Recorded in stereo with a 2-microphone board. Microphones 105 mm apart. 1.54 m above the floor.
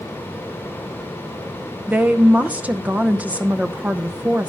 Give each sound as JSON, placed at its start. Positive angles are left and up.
{"t": 1.9, "sound": "a woman speaking", "side_deg": -15, "distance_m": 0.7}